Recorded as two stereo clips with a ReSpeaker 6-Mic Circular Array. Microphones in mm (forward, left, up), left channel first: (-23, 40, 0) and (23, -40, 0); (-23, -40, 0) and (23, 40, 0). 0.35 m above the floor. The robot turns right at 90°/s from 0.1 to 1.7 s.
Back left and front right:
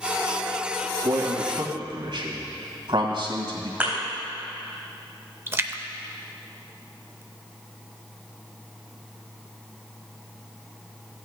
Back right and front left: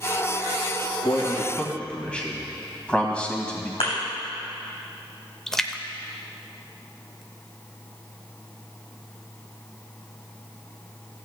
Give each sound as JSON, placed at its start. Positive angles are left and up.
{"t": 1.0, "sound": "a man speaking", "azimuth_deg": -105, "distance_m": 1.8}
{"t": 3.8, "sound": "a thud", "azimuth_deg": -135, "distance_m": 4.0}
{"t": 5.5, "sound": "a splash", "azimuth_deg": -40, "distance_m": 0.5}